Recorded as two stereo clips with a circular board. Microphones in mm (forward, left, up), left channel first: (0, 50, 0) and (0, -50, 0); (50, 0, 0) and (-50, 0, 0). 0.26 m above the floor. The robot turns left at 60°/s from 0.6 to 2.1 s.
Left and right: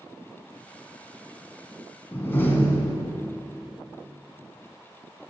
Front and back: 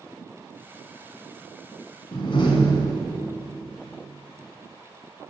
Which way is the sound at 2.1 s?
25° left.